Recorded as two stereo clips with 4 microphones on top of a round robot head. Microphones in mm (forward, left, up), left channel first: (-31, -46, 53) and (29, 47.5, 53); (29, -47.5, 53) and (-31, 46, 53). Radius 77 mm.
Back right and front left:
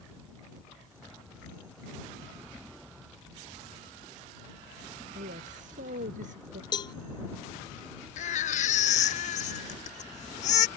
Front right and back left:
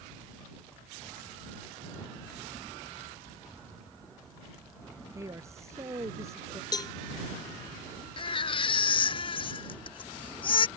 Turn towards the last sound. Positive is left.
turn(degrees=-100)